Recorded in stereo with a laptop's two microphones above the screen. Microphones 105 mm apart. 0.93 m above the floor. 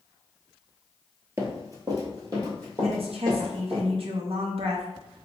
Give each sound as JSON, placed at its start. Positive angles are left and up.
{"t": 1.4, "sound": "running footsteps", "side_deg": -30, "distance_m": 1.0}
{"t": 2.8, "sound": "a woman speaking", "side_deg": -65, "distance_m": 0.5}